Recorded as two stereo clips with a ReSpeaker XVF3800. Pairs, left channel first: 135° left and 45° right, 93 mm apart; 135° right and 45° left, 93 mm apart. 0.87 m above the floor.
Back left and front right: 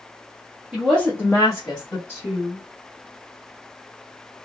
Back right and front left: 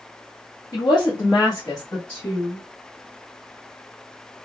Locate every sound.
0.7 s a woman speaking: 120° right, 0.7 m; by 2.0 s 165° left, 1.6 m
2.1 s a woman speaking: 165° left, 1.0 m